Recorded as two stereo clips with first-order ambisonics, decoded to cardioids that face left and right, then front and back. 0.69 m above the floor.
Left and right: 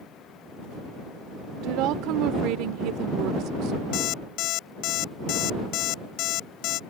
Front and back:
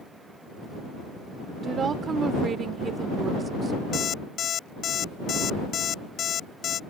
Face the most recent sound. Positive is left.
turn(degrees=60)